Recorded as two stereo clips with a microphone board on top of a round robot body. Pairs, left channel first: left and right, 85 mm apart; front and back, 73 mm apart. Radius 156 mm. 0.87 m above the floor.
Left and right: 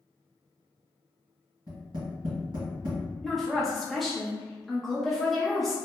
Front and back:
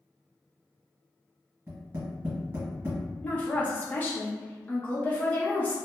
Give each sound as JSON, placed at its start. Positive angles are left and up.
{"t": 1.7, "sound": "tapping", "azimuth_deg": -120, "distance_m": 1.3}
{"t": 3.2, "sound": "a woman speaking", "azimuth_deg": 0, "distance_m": 0.9}